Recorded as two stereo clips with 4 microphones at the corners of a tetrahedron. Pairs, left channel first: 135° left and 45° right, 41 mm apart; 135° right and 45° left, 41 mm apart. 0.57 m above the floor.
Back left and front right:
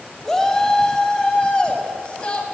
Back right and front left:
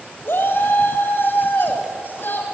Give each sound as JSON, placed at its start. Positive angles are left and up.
{"t": 0.2, "sound": "a shout", "azimuth_deg": -145, "distance_m": 3.0}